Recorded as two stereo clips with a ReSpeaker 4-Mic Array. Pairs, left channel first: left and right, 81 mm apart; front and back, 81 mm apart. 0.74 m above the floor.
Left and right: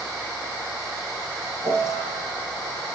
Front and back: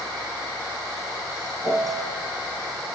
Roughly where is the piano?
Behind right.